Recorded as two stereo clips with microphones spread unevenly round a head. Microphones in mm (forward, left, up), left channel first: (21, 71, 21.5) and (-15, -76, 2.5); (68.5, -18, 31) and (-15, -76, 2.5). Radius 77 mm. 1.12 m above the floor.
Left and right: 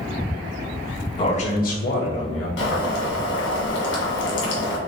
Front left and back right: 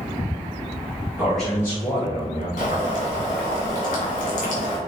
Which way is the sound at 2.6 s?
75° left.